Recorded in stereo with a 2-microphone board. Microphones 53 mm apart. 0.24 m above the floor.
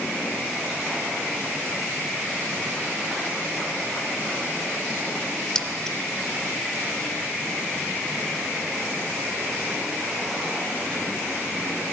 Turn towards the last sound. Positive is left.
turn(degrees=10)  # may be behind; listen again after turning